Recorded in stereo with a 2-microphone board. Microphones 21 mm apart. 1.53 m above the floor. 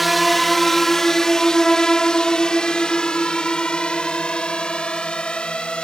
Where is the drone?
5° right (ahead or behind); by 5.8 s 55° left (ahead or behind).